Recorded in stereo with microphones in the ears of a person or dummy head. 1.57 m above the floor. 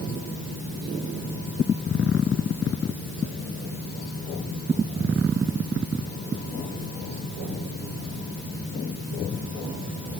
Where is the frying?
I don't hear frying.